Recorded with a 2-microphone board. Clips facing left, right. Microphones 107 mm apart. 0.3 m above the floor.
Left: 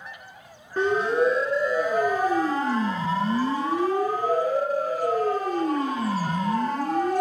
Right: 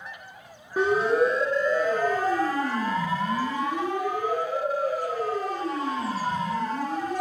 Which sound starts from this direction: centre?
A siren, at 0.8 s.